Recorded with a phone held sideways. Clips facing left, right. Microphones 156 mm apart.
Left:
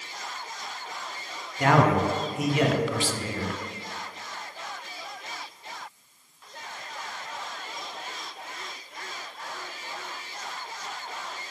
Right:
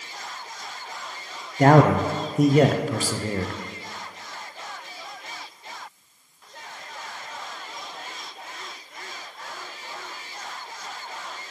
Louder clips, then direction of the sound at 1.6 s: Right 5 dB; 45° right (ahead or behind).